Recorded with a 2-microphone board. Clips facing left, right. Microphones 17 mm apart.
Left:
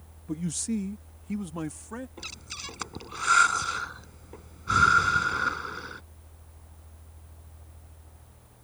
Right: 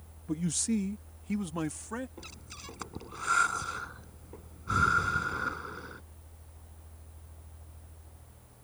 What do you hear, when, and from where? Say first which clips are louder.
0.3 s a man speaking: even; 5° right (ahead or behind); by 2.1 s 20° right (ahead or behind)
2.2 s breathing: left 8 dB; 40° left (ahead or behind)